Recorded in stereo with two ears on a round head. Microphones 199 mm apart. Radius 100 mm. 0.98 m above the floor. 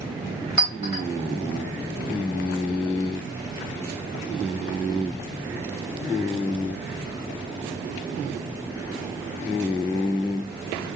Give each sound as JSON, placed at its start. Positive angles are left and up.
{"t": 0.6, "sound": "a clink", "side_deg": -40, "distance_m": 1.3}